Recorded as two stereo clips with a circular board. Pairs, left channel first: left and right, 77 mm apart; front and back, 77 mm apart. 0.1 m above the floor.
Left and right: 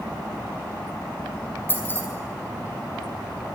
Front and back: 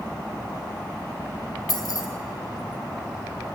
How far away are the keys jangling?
About 2.5 m.